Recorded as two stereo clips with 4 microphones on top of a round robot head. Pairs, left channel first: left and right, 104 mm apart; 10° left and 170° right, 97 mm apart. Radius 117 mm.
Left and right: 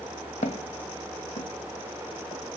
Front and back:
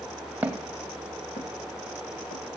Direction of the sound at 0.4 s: 115° left.